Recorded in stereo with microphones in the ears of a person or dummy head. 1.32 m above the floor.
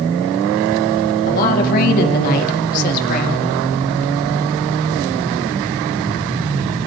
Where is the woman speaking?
50° left (ahead or behind), 2.5 m.